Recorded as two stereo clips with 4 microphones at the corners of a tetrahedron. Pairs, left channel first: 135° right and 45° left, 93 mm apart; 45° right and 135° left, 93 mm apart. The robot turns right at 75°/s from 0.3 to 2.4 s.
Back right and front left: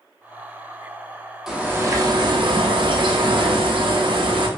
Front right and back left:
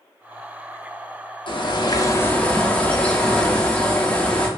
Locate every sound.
1.5 s a bird: 40° right, 0.6 m; by 4.5 s 30° left, 0.6 m